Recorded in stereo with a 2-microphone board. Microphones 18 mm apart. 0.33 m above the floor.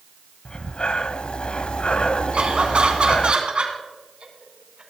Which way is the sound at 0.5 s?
60° left (ahead or behind).